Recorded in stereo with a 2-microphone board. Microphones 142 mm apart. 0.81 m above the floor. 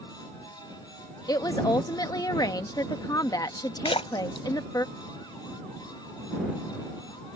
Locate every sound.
1.3 s a woman speaking: 25° left (ahead or behind)
3.9 s a splash: 45° left (ahead or behind)